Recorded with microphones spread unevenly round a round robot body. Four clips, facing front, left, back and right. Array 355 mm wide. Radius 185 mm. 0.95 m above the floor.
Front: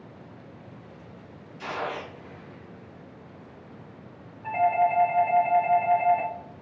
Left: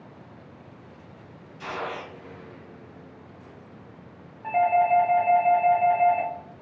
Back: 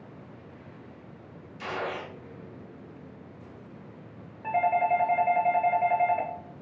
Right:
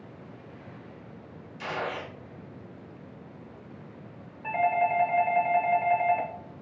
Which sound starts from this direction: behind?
A doorbell, at 4.4 s.